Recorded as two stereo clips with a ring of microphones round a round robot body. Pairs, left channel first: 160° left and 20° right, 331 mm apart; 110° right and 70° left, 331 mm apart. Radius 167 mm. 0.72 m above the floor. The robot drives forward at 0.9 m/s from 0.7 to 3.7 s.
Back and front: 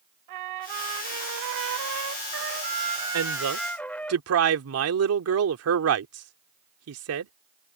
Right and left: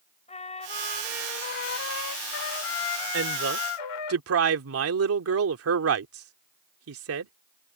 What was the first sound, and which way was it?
A trumpet, 40° right.